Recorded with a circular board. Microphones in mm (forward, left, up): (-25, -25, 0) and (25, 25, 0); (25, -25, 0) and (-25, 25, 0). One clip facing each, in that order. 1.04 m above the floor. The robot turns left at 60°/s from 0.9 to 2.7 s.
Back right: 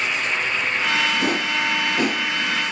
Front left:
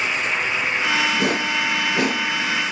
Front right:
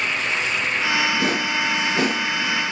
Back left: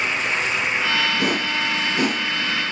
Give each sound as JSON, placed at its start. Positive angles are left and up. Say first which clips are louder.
{"t": 1.2, "sound": "a whoosh", "louder": "front left 1 dB, even", "azimuth_deg": 60, "distance_m": 4.0}